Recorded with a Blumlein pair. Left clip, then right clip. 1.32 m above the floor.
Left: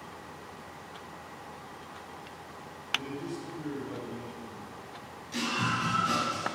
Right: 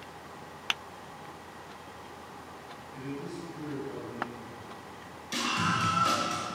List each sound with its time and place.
2.9 s a man speaking: straight ahead, 8 m
5.3 s a scream: 30° right, 7 m